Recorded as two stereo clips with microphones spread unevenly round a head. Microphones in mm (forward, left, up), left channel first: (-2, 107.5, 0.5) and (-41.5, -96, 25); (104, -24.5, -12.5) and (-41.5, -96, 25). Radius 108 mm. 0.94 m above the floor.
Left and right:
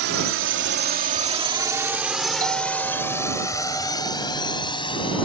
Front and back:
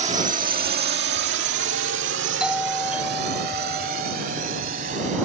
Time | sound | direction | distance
0.0 | a drone | 105° right | ?
2.4 | a doorbell | 40° right | ?